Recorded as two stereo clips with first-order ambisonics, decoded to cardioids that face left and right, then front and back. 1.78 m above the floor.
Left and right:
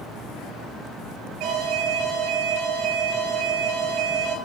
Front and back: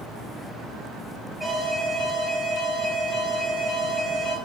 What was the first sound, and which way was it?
An alarm, 70° right.